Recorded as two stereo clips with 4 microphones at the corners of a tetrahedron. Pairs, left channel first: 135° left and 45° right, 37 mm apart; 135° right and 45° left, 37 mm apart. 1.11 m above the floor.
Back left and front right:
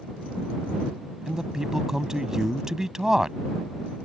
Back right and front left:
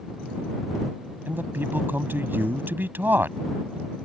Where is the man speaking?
30° left.